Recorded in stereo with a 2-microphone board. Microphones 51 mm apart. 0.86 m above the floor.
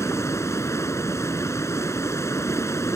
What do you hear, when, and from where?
0.0 s running water: 70° left (ahead or behind)